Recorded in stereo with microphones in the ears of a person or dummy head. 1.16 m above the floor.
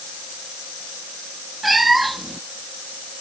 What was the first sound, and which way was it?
A cat meowing, centre (ahead or behind).